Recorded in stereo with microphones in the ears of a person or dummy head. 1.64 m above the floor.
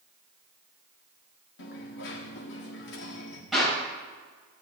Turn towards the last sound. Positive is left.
turn(degrees=0)  # may be behind; listen again after turning